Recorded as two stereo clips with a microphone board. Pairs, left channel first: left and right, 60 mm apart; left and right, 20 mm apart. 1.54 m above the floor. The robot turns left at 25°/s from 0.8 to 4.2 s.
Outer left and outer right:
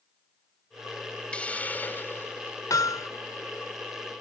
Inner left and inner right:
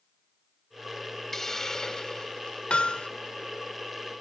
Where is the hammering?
75° left (ahead or behind).